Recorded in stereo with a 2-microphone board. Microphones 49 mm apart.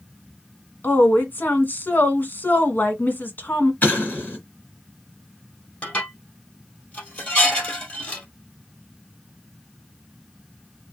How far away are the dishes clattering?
About 2.5 m.